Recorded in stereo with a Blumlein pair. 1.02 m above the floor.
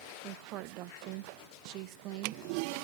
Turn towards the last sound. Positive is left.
turn(degrees=-40)